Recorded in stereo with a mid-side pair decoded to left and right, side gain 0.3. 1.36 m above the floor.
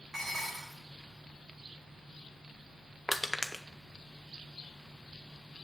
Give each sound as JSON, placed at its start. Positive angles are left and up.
{"t": 0.1, "sound": "dishes clattering", "azimuth_deg": -70, "distance_m": 3.5}
{"t": 3.1, "sound": "crushing", "azimuth_deg": 10, "distance_m": 1.1}